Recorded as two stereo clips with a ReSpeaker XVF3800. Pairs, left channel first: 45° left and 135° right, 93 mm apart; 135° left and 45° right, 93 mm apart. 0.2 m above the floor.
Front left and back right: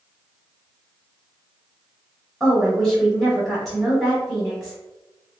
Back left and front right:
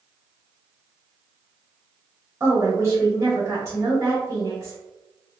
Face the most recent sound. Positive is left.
turn(degrees=-35)